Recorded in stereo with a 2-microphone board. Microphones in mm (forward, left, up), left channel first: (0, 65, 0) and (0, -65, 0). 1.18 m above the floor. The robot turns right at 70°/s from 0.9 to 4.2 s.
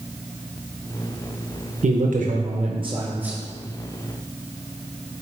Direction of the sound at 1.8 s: 110° right.